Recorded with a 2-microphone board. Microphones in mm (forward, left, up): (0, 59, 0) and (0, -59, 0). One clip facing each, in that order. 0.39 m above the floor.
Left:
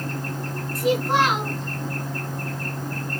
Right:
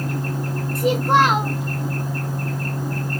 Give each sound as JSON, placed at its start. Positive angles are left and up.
{"t": 0.8, "sound": "a child speaking", "side_deg": -55, "distance_m": 1.5}